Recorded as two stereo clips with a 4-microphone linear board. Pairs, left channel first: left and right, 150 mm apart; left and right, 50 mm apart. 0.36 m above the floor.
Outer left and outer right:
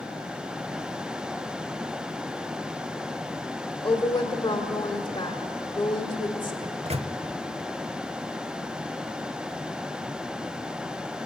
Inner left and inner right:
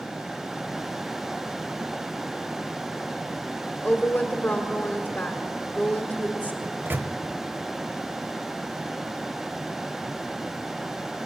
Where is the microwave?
45° right (ahead or behind), 1.0 m.